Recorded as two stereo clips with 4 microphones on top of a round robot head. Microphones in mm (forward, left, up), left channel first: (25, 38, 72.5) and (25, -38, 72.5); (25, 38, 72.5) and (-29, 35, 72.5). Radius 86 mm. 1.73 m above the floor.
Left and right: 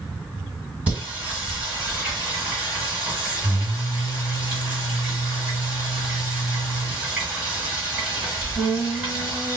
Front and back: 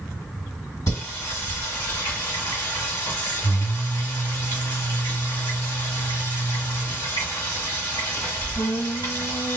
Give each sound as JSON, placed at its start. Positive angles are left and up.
{"t": 0.9, "sound": "singing", "azimuth_deg": -25, "distance_m": 2.0}